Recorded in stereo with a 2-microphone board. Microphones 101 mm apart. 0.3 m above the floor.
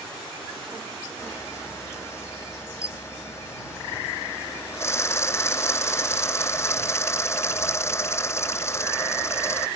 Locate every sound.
1.2 s a camera shutter: 25° left (ahead or behind)